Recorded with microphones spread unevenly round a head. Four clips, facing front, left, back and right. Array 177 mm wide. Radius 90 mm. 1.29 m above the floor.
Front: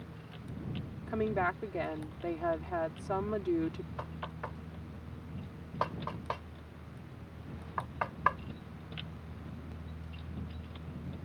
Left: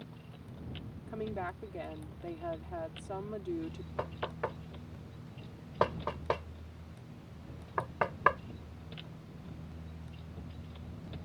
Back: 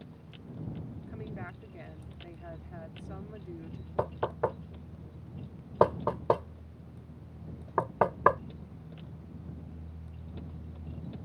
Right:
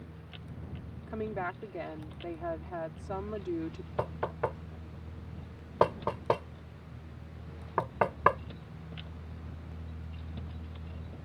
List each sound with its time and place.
1.1 s a woman speaking: 10° right
4.0 s knocking: 165° right